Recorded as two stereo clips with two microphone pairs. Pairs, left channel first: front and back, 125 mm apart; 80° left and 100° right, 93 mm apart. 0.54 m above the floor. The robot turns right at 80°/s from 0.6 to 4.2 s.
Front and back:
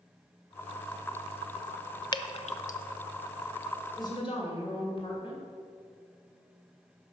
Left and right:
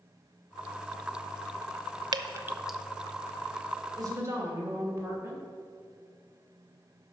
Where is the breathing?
No breathing in this recording.